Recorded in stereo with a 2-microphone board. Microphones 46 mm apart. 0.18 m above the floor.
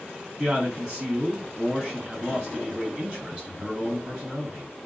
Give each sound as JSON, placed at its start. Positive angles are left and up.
{"t": 0.4, "sound": "a man speaking", "side_deg": -30, "distance_m": 1.9}